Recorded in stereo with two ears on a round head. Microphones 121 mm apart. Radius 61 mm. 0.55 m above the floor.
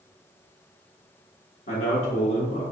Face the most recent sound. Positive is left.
turn(degrees=45)  # may be behind; listen again after turning